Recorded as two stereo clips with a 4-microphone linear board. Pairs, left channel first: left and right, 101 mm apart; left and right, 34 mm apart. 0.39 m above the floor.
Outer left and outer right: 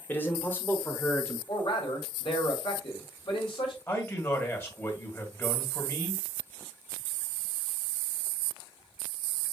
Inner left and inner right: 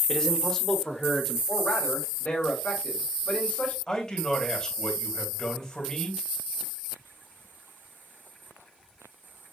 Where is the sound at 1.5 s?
60° left (ahead or behind), 2 m.